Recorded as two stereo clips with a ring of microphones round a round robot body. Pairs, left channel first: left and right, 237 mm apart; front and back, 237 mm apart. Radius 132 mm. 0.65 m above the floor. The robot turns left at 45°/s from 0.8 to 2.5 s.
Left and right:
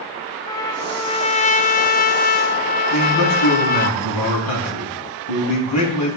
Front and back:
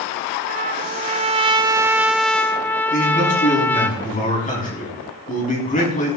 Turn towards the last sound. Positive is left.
turn(degrees=55)